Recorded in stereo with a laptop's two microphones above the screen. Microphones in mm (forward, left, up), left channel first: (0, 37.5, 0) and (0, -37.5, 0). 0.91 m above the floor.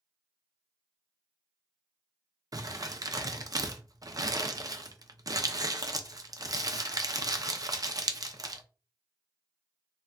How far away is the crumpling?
About 0.5 m.